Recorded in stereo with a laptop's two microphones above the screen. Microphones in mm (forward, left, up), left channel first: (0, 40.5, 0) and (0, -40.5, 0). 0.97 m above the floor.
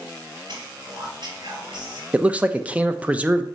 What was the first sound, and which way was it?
Whispering, 70° right (ahead or behind).